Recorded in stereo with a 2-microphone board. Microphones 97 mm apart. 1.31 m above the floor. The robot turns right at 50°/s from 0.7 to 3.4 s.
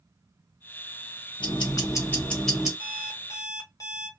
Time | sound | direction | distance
1.4 | ticking | 125° left | 1.2 m
2.8 | an alarm clock | 100° left | 0.9 m